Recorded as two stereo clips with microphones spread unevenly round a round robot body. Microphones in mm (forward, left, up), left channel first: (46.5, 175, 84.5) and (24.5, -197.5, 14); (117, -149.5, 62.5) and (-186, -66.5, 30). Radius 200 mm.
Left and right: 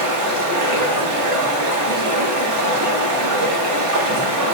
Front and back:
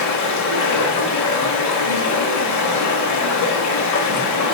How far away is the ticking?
No ticking in this recording.